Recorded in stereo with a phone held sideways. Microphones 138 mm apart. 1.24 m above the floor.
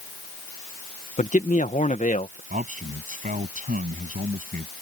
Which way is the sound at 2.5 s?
75° right (ahead or behind).